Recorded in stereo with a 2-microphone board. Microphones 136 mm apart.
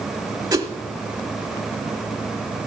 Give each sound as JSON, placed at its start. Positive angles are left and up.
{"t": 0.5, "sound": "a whoosh", "side_deg": -25, "distance_m": 1.1}